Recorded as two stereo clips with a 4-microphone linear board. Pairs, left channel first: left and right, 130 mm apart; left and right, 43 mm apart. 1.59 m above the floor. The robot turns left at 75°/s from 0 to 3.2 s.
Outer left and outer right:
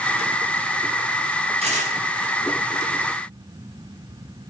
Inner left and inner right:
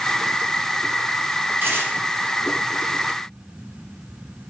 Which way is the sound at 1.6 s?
50° right (ahead or behind).